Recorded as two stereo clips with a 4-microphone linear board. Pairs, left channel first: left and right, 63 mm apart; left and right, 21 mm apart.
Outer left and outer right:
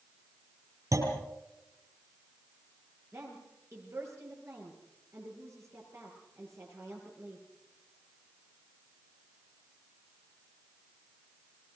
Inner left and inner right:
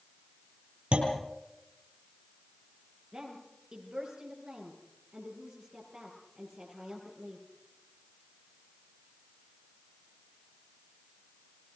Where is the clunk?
60° right (ahead or behind), 5.5 m.